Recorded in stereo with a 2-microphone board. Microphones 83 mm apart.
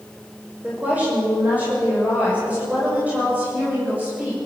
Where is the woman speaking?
20° right (ahead or behind), 6 m.